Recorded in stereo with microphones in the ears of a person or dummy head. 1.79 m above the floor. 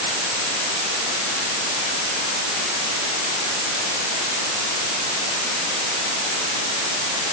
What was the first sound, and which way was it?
Only background noise.